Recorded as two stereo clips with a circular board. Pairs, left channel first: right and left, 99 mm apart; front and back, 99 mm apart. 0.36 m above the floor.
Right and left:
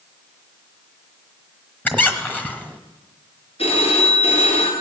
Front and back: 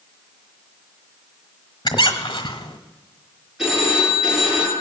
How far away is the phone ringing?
About 4.5 m.